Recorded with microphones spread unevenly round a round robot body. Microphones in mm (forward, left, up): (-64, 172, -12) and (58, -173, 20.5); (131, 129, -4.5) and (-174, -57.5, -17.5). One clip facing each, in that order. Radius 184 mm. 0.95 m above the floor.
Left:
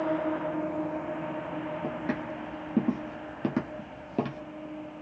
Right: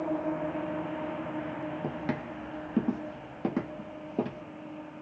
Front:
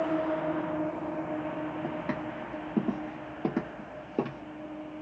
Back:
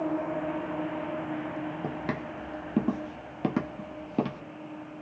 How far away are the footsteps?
About 1.3 m.